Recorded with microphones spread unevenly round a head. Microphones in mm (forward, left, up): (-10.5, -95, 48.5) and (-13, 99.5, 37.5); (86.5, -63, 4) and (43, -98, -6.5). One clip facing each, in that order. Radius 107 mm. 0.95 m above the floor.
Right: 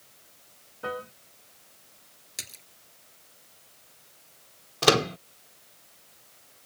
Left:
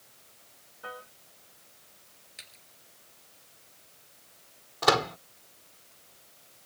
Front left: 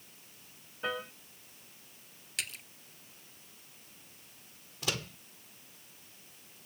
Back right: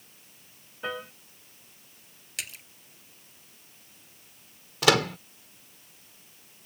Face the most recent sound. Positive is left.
turn(degrees=-145)